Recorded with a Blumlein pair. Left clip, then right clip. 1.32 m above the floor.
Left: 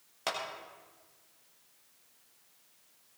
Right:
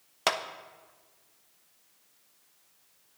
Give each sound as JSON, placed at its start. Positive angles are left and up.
{"t": 0.3, "sound": "a clap", "azimuth_deg": -25, "distance_m": 0.7}